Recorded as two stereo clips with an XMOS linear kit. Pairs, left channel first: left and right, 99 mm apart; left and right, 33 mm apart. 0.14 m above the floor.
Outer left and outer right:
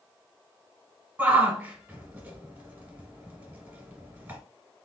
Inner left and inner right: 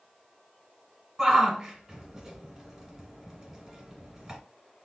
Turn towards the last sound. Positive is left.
turn(degrees=-20)  # may be behind; listen again after turning